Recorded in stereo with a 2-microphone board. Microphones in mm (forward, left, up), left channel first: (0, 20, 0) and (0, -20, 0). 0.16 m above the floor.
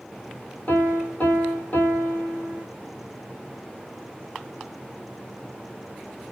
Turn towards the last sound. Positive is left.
turn(degrees=55)  # may be behind; listen again after turning